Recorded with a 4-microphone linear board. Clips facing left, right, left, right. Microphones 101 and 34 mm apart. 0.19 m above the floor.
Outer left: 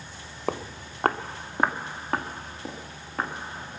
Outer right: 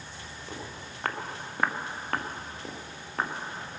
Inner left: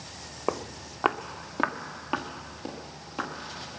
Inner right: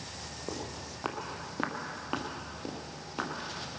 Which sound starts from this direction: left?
Footsteps, at 0.5 s.